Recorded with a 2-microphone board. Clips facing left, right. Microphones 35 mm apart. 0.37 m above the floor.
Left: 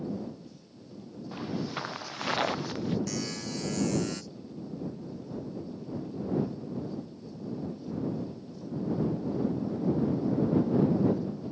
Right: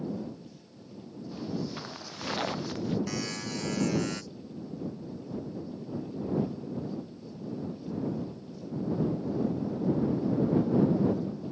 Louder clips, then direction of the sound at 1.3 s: Left 1 dB; 40° left (ahead or behind).